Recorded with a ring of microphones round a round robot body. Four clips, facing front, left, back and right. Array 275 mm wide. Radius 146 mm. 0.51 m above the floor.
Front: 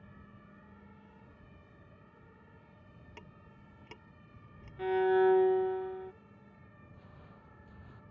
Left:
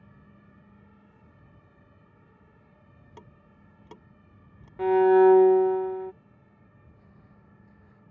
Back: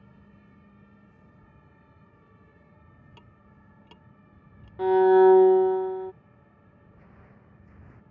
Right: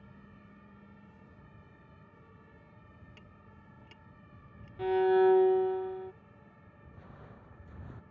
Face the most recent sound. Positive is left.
turn(degrees=-100)